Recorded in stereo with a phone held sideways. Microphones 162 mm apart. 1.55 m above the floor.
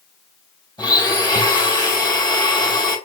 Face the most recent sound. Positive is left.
turn(degrees=30)  # may be behind; listen again after turning